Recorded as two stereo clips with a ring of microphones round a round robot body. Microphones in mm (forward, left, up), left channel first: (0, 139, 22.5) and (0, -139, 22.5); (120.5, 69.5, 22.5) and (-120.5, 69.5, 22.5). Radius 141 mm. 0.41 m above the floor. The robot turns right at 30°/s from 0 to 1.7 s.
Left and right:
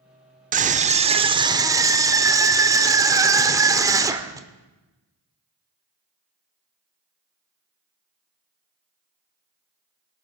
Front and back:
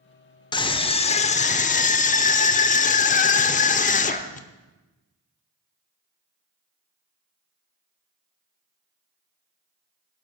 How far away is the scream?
About 0.9 m.